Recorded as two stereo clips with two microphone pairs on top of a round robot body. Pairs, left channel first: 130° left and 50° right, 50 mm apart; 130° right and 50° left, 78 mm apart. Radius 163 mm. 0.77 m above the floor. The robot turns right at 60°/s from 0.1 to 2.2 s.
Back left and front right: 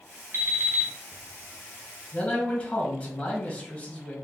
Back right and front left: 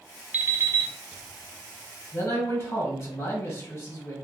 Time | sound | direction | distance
0.3 | an alarm clock | 20° right | 1.3 m
2.1 | a man speaking | 175° right | 1.5 m